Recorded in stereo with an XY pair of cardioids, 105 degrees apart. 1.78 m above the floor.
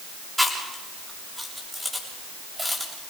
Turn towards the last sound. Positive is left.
turn(degrees=-5)